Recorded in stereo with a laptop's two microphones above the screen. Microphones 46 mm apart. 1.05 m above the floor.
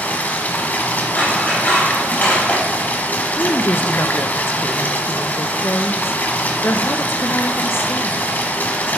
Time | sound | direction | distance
0.0 | running water | 40° left (ahead or behind) | 1.2 m
1.1 | scissors | 40° left (ahead or behind) | 4 m
3.4 | a woman speaking | 60° left (ahead or behind) | 0.5 m